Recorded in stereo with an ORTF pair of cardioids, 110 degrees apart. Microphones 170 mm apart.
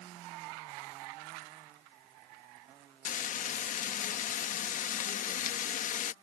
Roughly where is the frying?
Ahead left.